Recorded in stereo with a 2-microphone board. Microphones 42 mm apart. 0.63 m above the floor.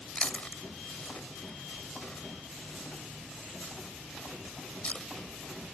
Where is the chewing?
35° left (ahead or behind).